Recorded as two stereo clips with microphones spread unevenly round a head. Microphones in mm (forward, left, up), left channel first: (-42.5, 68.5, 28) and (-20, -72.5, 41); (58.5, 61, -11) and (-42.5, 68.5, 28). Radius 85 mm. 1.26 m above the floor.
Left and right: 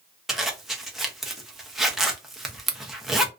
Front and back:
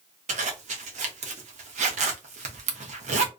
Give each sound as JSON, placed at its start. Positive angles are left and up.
{"t": 0.3, "sound": "a zipper", "azimuth_deg": -170, "distance_m": 0.7}